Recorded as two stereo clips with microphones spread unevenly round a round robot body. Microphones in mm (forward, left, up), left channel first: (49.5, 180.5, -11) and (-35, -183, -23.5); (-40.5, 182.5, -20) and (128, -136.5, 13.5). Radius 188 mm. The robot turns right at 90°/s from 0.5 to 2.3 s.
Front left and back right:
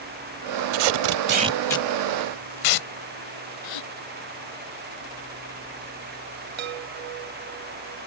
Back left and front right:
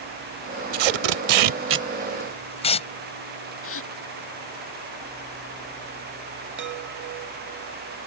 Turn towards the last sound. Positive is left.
turn(degrees=-125)